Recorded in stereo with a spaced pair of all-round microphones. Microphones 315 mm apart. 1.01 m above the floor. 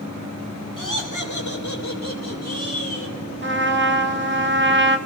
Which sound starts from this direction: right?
A trumpet, at 3.4 s.